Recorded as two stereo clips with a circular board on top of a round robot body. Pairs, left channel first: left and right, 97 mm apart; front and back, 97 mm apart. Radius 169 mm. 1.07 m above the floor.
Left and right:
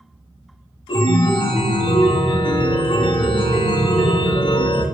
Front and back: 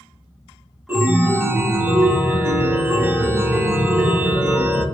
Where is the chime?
115° left, 0.8 m.